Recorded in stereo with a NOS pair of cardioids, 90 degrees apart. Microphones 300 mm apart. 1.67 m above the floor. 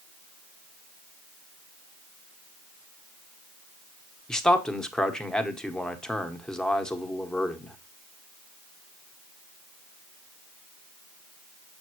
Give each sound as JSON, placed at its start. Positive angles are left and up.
{"t": 4.3, "sound": "a man speaking", "azimuth_deg": 5, "distance_m": 1.2}